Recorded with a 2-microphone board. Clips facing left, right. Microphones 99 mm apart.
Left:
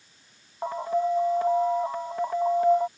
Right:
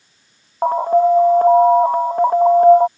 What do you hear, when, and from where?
0.6 s an alarm: 50° right (ahead or behind)